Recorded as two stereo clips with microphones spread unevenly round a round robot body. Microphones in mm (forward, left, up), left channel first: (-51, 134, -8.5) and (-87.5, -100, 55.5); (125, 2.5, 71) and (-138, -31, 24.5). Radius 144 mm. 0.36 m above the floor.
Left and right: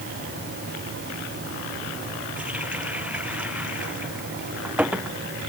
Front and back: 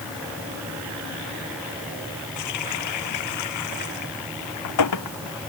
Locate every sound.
2.4 s a running tap: 15° right